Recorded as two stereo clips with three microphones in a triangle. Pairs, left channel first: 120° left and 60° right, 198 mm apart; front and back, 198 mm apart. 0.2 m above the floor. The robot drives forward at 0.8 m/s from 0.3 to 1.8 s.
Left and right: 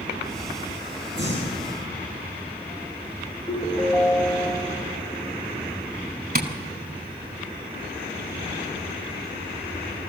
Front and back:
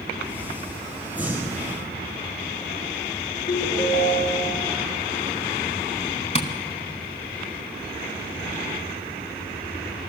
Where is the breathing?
95° left, 4 m; by 1.7 s 105° left, 4 m.